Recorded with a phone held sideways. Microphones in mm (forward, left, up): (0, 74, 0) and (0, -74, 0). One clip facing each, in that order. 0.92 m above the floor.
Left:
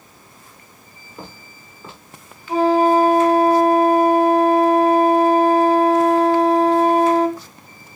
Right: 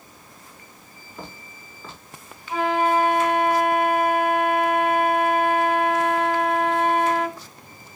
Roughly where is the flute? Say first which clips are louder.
Left 7 dB; left.